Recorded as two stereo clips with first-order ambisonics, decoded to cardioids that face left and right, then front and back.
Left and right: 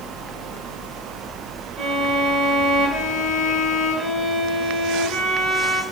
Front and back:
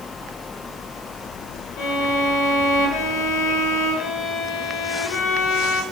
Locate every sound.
1.8 s a violin: 15° right, 2.5 m